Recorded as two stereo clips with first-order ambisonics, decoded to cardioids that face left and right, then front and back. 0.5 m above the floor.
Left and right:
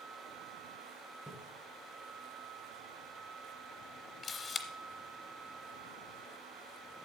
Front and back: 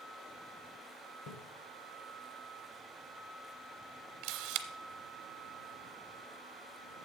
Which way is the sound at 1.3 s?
10° right.